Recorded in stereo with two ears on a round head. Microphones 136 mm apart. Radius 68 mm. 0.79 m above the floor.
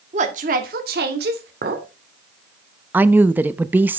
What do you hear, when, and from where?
0.1 s a woman speaking: 45° right (ahead or behind), 1.7 m; by 1.5 s 75° right (ahead or behind), 2.5 m
1.6 s a clink: 70° right (ahead or behind), 1.8 m
2.9 s a woman speaking: 10° right (ahead or behind), 0.5 m